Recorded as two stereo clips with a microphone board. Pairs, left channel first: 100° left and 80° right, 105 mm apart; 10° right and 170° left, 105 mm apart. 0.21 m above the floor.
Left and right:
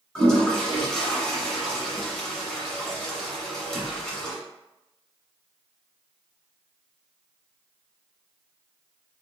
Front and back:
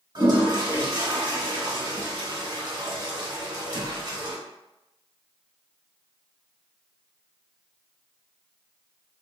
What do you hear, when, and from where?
0.1 s a toilet flushing: 175° left, 1.2 m